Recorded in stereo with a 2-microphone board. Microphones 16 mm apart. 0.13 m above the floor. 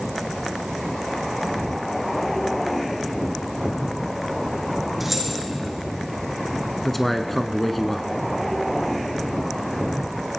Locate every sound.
5.0 s keys jangling: 10° right (ahead or behind), 4.5 m
6.8 s a man speaking: 10° left (ahead or behind), 1.1 m